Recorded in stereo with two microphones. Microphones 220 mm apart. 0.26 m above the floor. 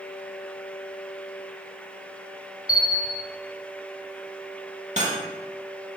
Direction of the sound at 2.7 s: 40° left (ahead or behind).